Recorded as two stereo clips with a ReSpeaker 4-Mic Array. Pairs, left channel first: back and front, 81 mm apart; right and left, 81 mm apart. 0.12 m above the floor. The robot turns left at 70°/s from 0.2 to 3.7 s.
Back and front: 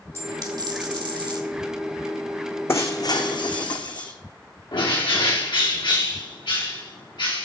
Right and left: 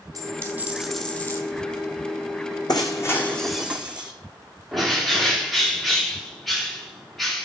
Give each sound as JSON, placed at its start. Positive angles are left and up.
{"t": 0.1, "sound": "a dropped coin", "azimuth_deg": 50, "distance_m": 1.9}
{"t": 2.7, "sound": "breaking glass", "azimuth_deg": -120, "distance_m": 1.6}
{"t": 4.7, "sound": "a bird", "azimuth_deg": 180, "distance_m": 3.0}